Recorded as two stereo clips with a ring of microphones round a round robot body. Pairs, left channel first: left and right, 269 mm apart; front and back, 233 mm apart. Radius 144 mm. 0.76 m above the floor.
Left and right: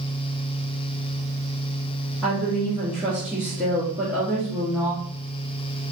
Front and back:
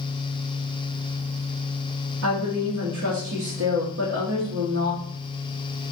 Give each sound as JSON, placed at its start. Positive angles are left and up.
{"t": 2.2, "sound": "a woman speaking", "azimuth_deg": -175, "distance_m": 1.6}